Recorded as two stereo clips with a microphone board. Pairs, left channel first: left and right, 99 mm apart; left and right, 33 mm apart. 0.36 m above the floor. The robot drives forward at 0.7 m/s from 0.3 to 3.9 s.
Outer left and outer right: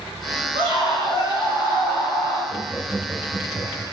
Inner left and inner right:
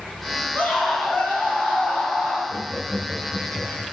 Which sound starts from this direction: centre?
Laughter, at 2.5 s.